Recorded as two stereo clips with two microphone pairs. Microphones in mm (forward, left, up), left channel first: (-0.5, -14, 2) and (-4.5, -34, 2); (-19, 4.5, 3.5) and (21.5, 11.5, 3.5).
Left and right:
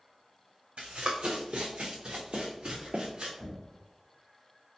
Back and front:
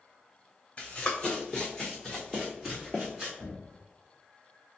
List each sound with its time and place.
0.8 s running footsteps: 115° right, 1.3 m; by 3.3 s 65° right, 2 m
3.4 s knocking: 140° left, 1.4 m